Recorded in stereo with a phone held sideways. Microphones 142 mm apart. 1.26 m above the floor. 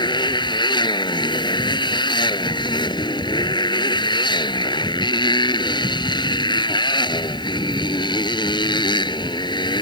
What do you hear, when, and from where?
0.0 s a motorcycle: 30° left (ahead or behind)